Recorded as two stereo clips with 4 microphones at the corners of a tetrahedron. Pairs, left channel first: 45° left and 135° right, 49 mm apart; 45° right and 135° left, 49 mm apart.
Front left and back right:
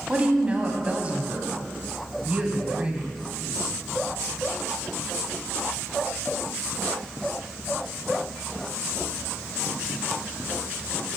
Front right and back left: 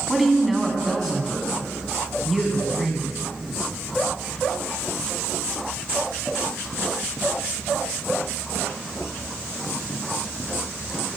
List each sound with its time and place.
0.1 s a woman speaking: 135° right, 1.3 m